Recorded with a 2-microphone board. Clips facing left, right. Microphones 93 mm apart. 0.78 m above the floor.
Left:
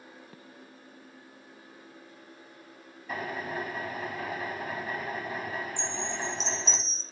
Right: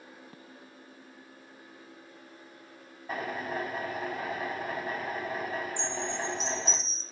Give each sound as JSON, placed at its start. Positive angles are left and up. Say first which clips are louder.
{"t": 3.1, "sound": "a drill", "louder": "right 1 dB", "side_deg": -30, "distance_m": 4.0}
{"t": 5.8, "sound": "a chime", "louder": "right 1 dB", "side_deg": -45, "distance_m": 1.0}